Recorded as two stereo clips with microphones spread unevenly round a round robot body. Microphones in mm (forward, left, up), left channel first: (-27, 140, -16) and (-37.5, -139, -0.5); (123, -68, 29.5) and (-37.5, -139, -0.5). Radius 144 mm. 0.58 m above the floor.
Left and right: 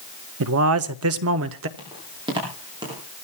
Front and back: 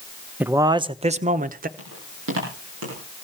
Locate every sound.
0.4 s a man speaking: 90° right, 0.8 m; by 1.7 s 135° right, 1.2 m
1.8 s footsteps: 165° right, 10 m